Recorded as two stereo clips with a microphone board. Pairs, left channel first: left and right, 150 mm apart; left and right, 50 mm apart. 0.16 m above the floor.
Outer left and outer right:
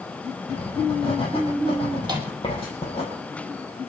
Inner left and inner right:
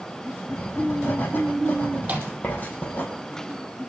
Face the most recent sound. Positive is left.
turn(degrees=-30)  # may be behind; listen again after turning